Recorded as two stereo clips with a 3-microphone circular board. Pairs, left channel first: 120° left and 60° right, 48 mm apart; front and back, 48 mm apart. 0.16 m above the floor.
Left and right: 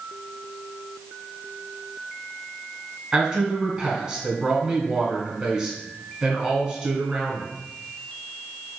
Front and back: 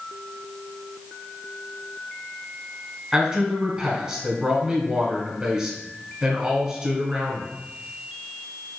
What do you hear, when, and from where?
3.1 s a man speaking: 125° right, 1.2 m